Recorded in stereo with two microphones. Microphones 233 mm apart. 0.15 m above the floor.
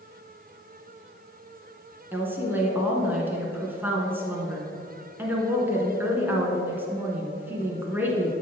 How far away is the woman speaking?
About 1.9 m.